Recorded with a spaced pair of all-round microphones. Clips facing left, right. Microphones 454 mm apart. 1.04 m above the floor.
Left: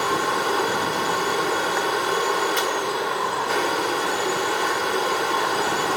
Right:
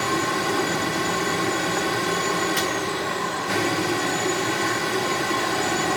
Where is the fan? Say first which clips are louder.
Even; 45° right (ahead or behind).